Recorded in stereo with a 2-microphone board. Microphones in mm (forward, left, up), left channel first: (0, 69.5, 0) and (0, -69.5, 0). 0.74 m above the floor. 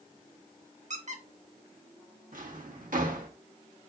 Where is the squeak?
60° right (ahead or behind), 0.7 m.